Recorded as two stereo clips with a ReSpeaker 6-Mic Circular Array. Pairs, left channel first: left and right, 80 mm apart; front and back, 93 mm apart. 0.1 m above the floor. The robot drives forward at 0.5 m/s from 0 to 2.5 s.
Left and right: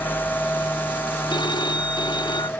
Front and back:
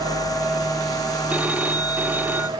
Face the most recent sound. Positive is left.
turn(degrees=110)